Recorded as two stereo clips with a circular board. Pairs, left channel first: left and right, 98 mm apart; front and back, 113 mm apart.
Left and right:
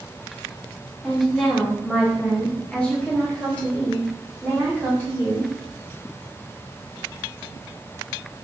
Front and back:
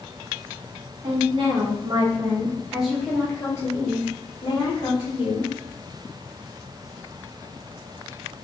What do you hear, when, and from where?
1.0 s a woman speaking: straight behind, 1.1 m; by 5.5 s 15° left, 1.5 m